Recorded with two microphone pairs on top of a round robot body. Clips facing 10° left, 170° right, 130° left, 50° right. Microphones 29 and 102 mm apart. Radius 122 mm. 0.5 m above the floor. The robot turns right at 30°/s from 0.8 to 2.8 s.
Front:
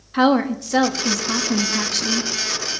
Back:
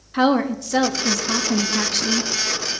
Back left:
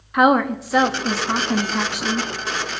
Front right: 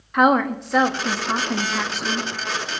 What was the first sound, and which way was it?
A woman speaking, 65° left.